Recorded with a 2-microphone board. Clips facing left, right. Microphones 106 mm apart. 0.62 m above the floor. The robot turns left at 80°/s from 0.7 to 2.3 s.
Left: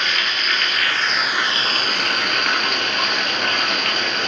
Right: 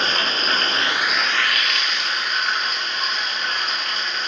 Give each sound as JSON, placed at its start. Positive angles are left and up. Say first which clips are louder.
{"t": 0.0, "sound": "running water", "louder": "right 1 dB", "azimuth_deg": -140, "distance_m": 1.2}